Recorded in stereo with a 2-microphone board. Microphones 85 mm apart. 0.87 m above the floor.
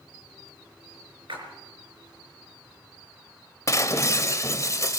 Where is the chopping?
I don't hear chopping.